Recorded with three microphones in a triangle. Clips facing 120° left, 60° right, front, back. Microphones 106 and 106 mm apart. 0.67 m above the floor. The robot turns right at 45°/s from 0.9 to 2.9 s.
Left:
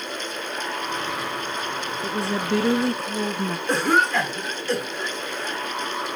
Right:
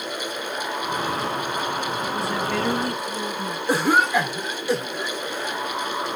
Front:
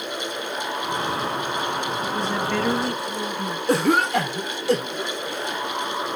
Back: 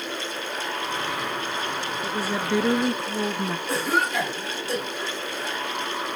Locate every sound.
2.0 s a woman speaking: 95° left, 0.5 m; by 3.6 s 135° left, 0.5 m
3.7 s a cough: 20° left, 1.5 m